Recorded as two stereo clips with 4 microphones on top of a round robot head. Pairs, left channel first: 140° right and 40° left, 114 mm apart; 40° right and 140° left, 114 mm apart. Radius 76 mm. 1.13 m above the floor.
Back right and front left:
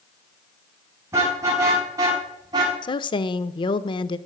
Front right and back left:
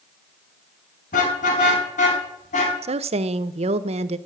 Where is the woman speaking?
170° left, 0.7 m.